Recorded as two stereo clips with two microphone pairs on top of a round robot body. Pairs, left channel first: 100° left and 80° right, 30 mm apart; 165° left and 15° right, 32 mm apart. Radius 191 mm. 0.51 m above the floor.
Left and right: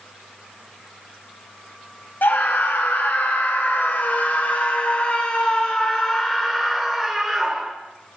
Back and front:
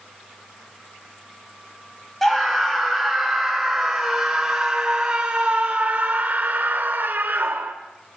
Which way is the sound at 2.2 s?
80° left.